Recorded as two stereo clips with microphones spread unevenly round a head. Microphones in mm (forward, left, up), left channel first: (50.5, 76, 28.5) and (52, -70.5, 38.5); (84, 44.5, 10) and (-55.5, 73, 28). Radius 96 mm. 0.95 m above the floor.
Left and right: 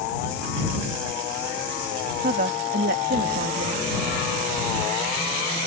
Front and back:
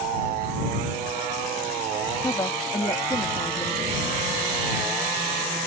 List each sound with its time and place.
2.2 s a woman speaking: 80° right